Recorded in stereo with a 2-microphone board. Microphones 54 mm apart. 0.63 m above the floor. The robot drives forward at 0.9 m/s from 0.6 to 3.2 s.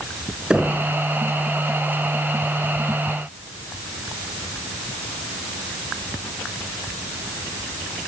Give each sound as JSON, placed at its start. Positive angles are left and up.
{"t": 0.5, "sound": "knocking", "side_deg": -15, "distance_m": 5.0}